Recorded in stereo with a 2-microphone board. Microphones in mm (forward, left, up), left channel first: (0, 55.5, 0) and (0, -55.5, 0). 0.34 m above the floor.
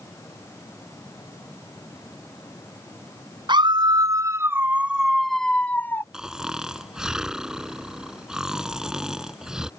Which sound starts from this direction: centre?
Snoring, at 6.1 s.